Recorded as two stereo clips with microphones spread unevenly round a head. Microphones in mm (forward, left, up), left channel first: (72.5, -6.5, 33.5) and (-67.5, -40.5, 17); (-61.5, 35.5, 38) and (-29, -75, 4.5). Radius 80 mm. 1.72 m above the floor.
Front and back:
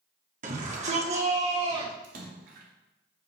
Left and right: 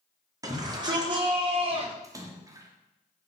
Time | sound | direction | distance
0.4 | a shout | 135° right | 4 m
2.0 | a splash | 140° right | 2 m